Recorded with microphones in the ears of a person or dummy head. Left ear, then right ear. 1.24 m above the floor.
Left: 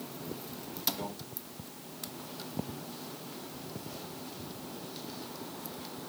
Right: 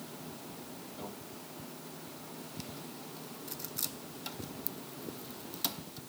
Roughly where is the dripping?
I don't hear dripping.